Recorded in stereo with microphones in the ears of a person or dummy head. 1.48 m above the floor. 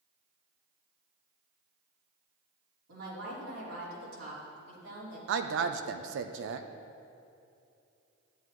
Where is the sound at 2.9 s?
85° right, 3.5 m.